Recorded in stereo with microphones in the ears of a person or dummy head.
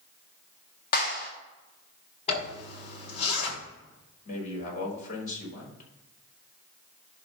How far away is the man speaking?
About 4 m.